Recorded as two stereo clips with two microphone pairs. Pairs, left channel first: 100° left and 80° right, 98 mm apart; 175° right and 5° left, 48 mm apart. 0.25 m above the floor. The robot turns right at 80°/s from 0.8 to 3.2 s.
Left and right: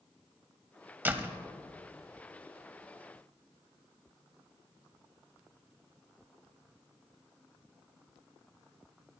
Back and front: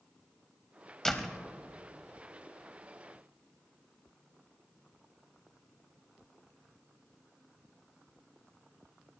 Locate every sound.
1.1 s a door slam: 110° right, 0.8 m; by 1.4 s 80° right, 0.8 m